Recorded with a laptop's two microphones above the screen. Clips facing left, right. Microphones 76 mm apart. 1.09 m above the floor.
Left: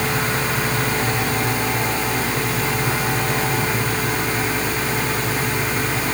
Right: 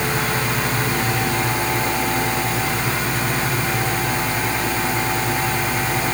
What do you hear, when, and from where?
Only background noise.